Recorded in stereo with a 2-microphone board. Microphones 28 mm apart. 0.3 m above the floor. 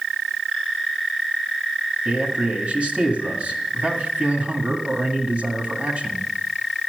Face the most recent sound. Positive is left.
turn(degrees=-60)  # may be behind; listen again after turning